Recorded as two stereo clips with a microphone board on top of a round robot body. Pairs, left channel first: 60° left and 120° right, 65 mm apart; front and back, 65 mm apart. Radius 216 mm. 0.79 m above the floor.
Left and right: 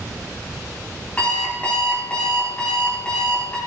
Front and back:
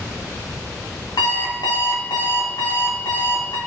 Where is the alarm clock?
10° right, 2.5 m.